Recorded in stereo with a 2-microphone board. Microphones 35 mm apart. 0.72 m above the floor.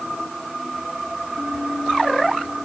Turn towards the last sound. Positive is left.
No sound to turn to.